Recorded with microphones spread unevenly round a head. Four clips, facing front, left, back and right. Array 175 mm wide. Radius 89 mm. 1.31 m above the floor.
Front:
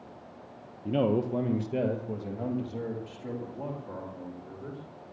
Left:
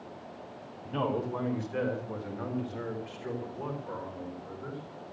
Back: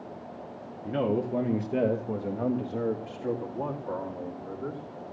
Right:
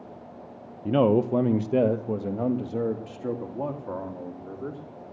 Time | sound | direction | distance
0.8 | a man speaking | 75° right | 0.8 m